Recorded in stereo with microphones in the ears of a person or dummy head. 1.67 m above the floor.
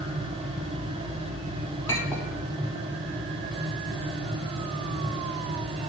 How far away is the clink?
About 1.9 m.